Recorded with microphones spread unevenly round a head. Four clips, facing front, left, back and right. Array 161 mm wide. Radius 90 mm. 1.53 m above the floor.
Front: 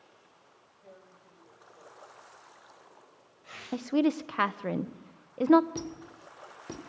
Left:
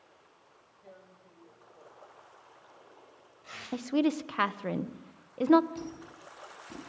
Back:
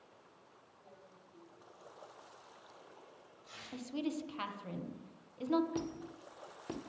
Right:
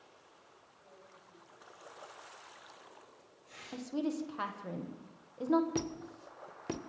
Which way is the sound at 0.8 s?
45° left.